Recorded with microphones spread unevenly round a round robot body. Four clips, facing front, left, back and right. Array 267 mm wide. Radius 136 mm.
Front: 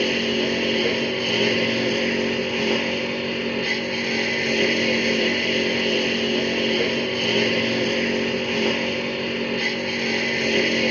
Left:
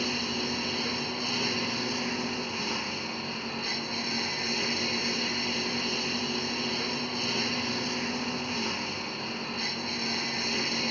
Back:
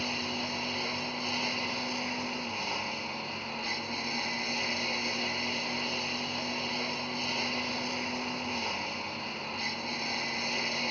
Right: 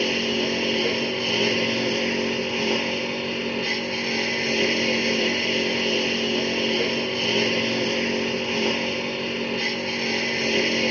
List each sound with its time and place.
0.0 s a lawn mower: 30° right